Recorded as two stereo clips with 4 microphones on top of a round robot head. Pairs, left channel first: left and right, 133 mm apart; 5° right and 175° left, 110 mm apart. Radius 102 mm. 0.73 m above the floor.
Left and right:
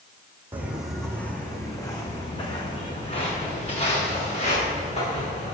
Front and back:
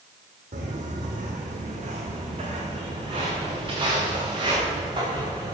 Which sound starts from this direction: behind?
Footsteps, at 0.5 s.